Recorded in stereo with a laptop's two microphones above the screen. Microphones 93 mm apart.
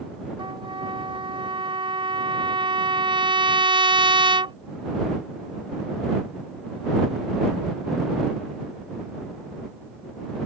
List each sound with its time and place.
0.4 s a trumpet: 70° right (ahead or behind)